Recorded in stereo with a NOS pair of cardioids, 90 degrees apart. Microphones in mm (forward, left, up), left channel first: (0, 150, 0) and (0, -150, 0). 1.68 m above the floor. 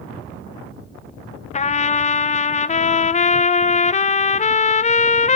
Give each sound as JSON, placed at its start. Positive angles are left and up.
{"t": 1.5, "sound": "a trumpet", "azimuth_deg": 25, "distance_m": 0.8}